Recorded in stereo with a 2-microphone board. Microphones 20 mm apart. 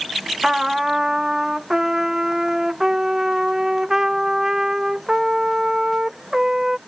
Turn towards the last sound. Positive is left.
turn(degrees=-30)  # may be behind; listen again after turning